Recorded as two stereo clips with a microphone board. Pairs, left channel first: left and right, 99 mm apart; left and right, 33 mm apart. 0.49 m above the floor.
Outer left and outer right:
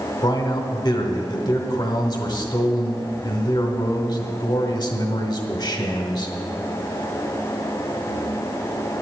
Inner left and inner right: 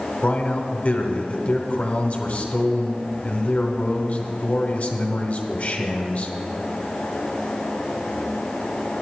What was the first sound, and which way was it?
A man speaking, 50° left (ahead or behind).